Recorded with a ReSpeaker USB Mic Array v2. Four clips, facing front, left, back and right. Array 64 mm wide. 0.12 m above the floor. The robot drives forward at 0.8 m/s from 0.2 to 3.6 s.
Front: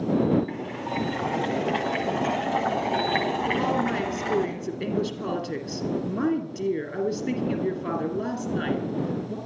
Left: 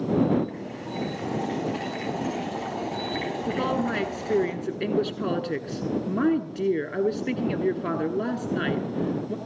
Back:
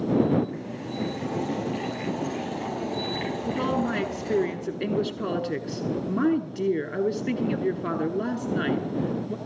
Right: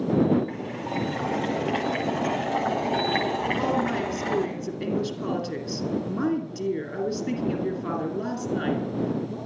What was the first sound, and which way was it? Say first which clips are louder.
Boiling: right 3 dB, front 3 dB; 35° right.